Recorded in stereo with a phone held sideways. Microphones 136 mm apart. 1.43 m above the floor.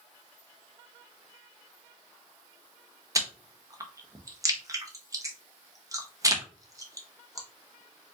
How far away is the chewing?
About 0.7 m.